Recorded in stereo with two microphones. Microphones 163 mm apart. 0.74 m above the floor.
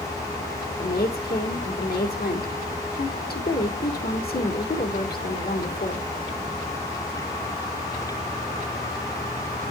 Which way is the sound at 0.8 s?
70° left (ahead or behind).